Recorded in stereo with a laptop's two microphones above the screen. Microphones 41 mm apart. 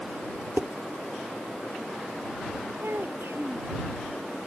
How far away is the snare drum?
No snare drum in this recording.